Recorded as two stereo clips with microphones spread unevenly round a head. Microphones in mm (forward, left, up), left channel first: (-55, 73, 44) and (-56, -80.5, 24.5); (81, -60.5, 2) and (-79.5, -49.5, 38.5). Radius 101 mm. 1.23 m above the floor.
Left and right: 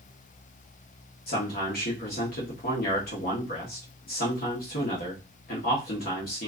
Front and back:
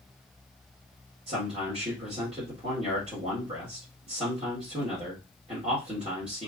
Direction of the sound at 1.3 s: 115° left.